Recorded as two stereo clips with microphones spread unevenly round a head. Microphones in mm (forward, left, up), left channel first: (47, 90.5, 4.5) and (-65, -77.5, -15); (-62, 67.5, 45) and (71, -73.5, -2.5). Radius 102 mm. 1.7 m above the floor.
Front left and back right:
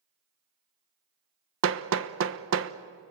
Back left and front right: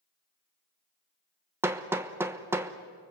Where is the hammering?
135° right, 1.1 m.